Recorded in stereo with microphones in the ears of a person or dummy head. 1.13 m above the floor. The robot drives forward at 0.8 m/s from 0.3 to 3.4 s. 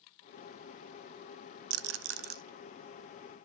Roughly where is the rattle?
Right.